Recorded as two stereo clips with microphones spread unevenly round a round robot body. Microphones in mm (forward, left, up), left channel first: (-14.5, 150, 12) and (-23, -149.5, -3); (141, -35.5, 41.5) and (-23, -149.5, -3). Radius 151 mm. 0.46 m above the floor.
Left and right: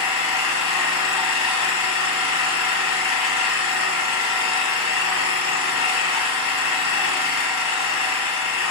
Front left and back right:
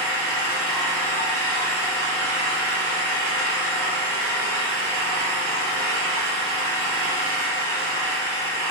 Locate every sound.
0.0 s an engine running: 120° left, 0.8 m